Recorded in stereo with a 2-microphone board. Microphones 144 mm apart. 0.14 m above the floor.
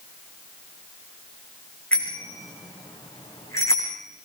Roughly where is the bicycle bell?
Centre.